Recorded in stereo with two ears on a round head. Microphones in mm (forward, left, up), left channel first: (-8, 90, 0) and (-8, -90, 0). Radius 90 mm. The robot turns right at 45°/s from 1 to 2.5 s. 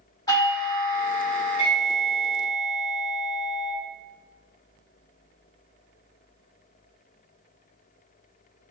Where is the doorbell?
20° left (ahead or behind), 1.7 m; by 3.7 s 5° left (ahead or behind), 1.7 m.